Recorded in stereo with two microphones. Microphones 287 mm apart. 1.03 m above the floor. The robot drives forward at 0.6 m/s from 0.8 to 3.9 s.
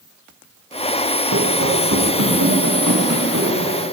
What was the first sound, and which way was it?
Running footsteps, 70° right (ahead or behind).